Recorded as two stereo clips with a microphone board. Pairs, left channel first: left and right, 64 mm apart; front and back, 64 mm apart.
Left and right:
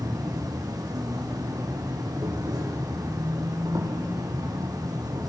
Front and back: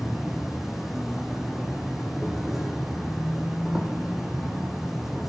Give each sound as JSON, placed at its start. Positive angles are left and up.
{"t": 0.0, "sound": "an insect", "azimuth_deg": -95, "distance_m": 3.5}